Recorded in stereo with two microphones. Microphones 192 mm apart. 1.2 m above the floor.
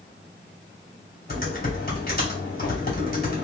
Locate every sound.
1.3 s typing on a keyboard: 50° left (ahead or behind), 2 m